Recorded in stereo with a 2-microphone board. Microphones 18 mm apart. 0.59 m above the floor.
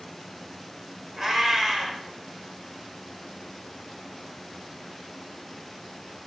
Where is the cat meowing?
20° right (ahead or behind), 0.9 m.